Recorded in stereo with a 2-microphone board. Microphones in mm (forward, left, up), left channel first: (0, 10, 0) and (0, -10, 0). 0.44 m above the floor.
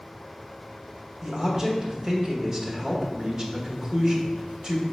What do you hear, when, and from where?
1.2 s a man speaking: 35° right (ahead or behind), 1.0 m